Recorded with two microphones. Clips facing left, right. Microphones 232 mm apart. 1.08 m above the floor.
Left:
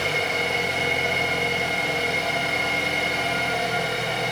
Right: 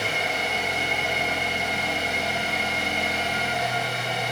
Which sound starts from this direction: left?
An engine running, at 0.0 s.